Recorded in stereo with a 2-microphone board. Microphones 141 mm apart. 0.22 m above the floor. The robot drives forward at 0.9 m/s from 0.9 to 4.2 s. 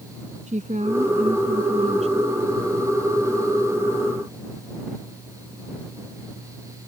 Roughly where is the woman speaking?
Right.